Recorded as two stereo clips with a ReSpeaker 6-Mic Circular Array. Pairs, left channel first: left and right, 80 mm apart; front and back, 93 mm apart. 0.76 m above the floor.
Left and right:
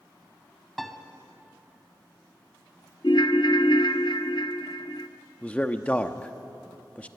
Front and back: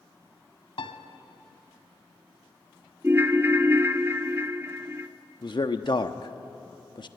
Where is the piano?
Straight ahead, 1.6 m.